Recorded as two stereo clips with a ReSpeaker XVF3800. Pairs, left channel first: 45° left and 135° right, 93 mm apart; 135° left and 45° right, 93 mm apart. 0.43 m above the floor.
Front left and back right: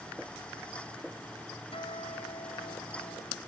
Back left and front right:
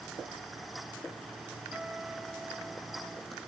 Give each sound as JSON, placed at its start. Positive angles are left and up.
{"t": 1.7, "sound": "a guitar", "azimuth_deg": 35}